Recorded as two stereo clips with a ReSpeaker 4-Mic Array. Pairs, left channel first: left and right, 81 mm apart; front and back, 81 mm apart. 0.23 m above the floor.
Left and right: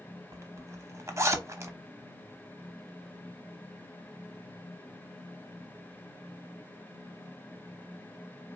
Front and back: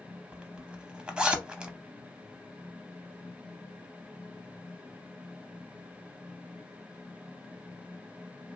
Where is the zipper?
110° right, 0.5 m.